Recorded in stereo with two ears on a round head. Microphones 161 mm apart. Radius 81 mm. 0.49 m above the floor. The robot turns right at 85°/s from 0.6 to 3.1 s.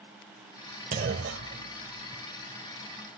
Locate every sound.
0.9 s a clunk: 45° right (ahead or behind); by 2.2 s 20° right (ahead or behind)